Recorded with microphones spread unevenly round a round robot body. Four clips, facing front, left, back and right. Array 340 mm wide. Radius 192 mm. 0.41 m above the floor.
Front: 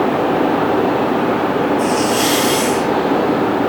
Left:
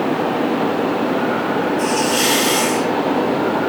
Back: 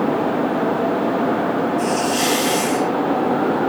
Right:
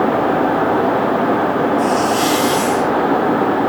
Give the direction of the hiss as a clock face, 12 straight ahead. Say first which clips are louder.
Right 3 dB, front 4 dB; 6 o'clock.